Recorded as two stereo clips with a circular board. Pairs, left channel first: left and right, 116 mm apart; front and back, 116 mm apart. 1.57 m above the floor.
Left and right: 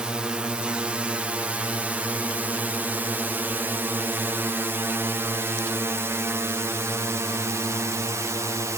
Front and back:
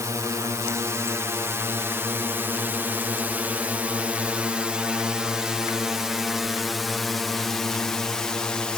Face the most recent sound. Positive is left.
turn(degrees=-75)